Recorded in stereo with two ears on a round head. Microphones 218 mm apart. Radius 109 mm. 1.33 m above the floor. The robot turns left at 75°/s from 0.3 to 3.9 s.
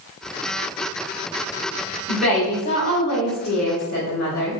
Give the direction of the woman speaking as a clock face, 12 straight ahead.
6 o'clock.